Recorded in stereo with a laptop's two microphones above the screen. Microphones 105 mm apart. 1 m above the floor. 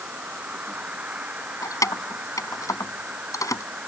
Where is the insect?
15° right (ahead or behind).